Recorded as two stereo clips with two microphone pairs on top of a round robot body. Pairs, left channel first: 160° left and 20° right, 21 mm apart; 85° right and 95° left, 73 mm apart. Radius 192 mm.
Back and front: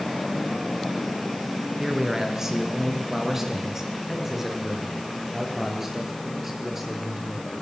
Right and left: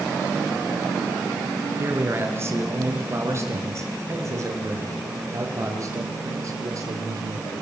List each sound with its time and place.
1.8 s a man speaking: 40° left, 5 m; by 7.6 s 60° left, 8 m